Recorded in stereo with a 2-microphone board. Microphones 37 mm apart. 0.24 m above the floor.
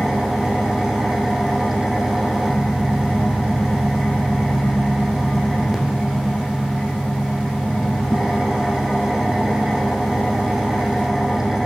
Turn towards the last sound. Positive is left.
turn(degrees=-10)  # may be behind; listen again after turning